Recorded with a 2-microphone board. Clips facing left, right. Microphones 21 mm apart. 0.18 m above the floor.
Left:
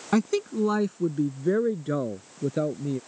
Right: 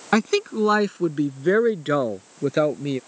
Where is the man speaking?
40° right (ahead or behind); by 3.0 s 55° right (ahead or behind).